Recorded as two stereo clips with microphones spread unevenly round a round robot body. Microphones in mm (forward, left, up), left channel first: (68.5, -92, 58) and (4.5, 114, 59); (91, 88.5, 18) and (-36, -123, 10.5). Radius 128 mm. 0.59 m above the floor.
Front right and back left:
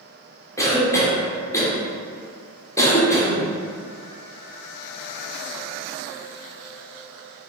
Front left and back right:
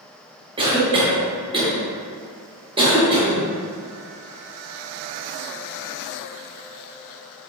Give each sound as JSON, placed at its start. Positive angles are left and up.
{"t": 0.6, "sound": "a cough", "azimuth_deg": -120, "distance_m": 1.0}